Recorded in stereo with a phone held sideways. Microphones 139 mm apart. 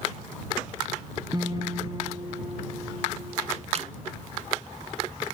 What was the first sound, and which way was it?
A guitar, 30° right (ahead or behind).